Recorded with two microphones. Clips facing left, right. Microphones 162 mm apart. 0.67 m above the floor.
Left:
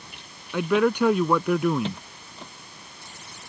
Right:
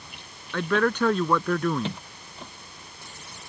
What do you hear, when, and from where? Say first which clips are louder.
0.5 s a man speaking: left 3 dB; 10° left (ahead or behind)